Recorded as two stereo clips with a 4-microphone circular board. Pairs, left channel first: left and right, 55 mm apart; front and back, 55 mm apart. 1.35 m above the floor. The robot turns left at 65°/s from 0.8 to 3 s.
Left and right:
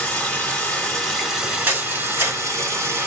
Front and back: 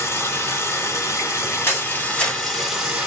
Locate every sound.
0.0 s running water: 25° left, 2.0 m; by 3.1 s 120° right, 2.0 m
1.7 s a camera shutter: 35° right, 1.8 m; by 2.4 s 85° right, 1.8 m